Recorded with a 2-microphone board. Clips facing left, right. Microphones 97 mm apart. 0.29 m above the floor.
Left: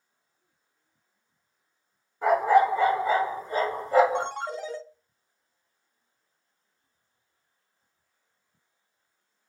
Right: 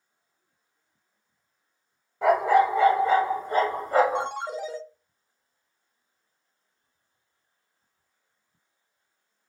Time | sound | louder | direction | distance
2.2 | a dog barking | even | 80° right | 1.9 m
4.2 | a ringtone | right 1 dB | 10° right (ahead or behind) | 0.8 m